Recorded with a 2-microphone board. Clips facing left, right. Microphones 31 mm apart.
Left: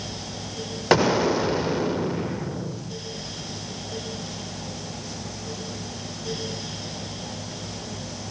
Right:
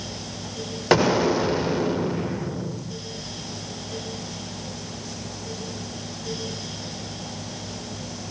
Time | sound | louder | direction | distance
0.9 | an explosion | right 1 dB | centre (ahead or behind) | 0.6 m